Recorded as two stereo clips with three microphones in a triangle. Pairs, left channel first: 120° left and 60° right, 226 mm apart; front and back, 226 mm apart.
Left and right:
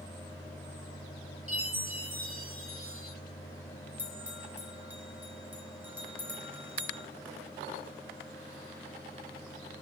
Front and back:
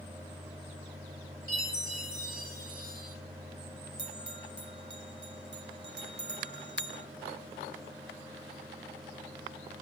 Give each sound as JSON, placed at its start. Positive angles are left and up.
{"t": 1.5, "sound": "a chime", "azimuth_deg": 110, "distance_m": 3.0}
{"t": 4.0, "sound": "a bell", "azimuth_deg": -140, "distance_m": 1.1}